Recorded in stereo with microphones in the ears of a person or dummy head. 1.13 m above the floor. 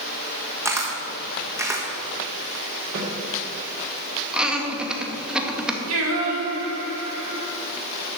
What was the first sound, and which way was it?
A camera shutter, 10° right (ahead or behind).